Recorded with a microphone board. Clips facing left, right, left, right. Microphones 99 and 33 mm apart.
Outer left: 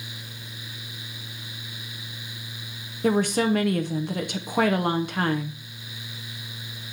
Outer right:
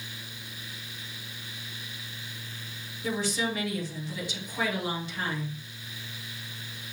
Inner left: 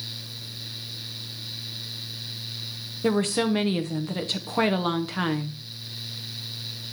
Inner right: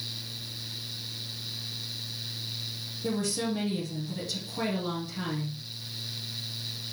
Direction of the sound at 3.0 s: 60° left (ahead or behind).